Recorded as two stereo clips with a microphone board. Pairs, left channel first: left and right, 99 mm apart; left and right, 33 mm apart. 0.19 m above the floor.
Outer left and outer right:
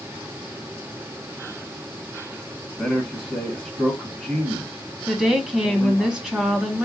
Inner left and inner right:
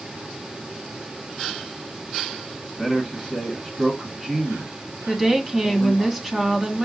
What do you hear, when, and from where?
2.8 s a man speaking: 10° left (ahead or behind), 1.6 m
5.1 s a woman speaking: 5° right (ahead or behind), 1.3 m